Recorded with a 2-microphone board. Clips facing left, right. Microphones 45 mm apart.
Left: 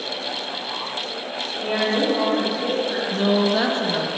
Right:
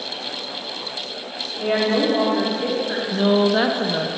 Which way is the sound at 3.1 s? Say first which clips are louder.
Right 3 dB; 15° right (ahead or behind).